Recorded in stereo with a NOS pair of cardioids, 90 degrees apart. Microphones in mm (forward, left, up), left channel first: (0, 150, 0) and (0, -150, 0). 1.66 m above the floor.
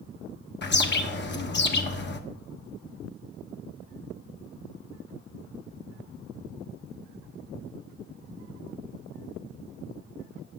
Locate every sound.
0.6 s a bird: 35° left, 1.0 m